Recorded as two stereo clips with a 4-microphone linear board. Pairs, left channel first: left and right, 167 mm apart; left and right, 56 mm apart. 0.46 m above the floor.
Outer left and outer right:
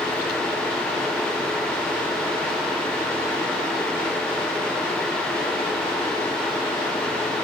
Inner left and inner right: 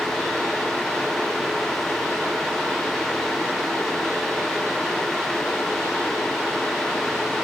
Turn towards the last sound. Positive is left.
No sound to turn to.